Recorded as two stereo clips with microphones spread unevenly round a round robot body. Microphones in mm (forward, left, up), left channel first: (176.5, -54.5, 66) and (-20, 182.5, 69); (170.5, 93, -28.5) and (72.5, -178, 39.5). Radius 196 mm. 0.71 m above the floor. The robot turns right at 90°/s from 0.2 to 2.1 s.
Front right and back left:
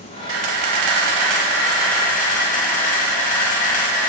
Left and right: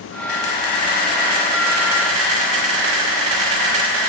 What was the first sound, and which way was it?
A camera shutter, 75° left.